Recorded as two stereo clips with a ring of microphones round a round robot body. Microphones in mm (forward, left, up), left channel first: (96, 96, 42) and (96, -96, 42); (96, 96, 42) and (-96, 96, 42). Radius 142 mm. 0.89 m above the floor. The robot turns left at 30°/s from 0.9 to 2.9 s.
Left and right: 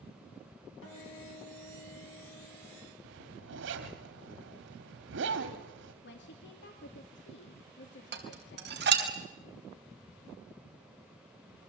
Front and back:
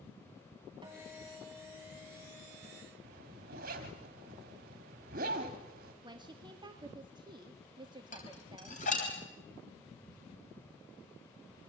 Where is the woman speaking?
115° left, 2.0 m.